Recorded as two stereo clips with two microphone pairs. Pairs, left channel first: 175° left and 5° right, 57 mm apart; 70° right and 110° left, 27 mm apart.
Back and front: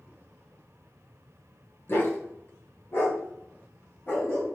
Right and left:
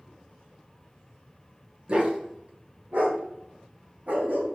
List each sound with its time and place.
1.9 s a dog barking: 150° left, 1.2 m; by 4.5 s 130° left, 2.5 m